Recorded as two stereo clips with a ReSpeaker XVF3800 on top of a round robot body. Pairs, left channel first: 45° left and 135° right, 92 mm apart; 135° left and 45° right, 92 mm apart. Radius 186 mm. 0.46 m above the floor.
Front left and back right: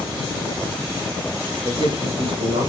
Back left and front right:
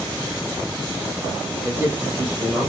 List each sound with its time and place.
1.6 s a man speaking: 115° right, 4.5 m; by 2.7 s 125° right, 3.5 m